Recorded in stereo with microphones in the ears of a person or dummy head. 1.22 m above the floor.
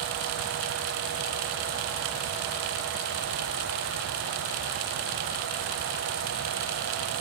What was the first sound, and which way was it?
Only background noise.